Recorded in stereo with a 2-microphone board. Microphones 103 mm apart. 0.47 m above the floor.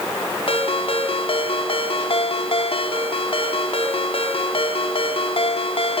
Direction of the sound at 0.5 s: 60° left (ahead or behind).